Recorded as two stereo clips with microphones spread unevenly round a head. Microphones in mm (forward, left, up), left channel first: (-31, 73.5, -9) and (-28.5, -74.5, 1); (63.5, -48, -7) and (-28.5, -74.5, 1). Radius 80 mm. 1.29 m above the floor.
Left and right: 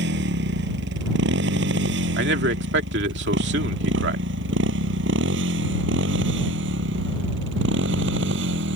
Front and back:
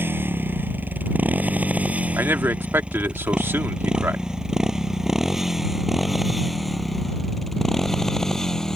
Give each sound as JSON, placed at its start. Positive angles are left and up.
{"t": 0.0, "sound": "a motorcycle", "azimuth_deg": -95}
{"t": 2.2, "sound": "a man speaking", "azimuth_deg": -95}